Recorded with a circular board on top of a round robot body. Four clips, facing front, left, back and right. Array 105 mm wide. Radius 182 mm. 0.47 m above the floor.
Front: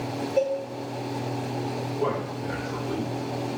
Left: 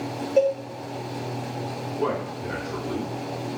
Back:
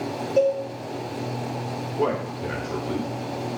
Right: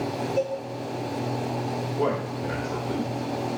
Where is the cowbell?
125° left, 0.9 m.